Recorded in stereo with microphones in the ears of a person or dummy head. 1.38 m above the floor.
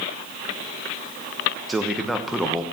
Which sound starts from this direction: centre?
A man speaking, at 1.7 s.